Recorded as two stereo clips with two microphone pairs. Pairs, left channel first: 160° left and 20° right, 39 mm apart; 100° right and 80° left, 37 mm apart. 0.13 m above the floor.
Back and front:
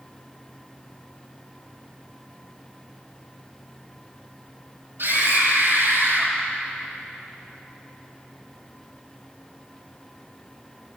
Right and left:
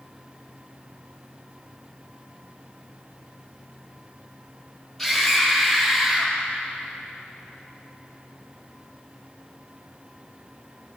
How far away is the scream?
About 3 m.